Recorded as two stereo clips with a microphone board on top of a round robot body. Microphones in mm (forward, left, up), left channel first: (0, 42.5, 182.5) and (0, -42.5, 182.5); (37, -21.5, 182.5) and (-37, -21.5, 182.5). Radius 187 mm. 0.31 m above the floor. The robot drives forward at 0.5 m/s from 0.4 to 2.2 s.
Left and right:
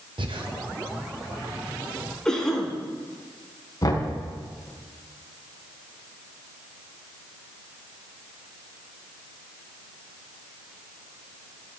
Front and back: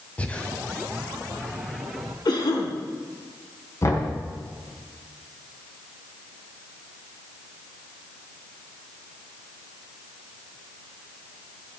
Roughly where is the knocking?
Ahead left.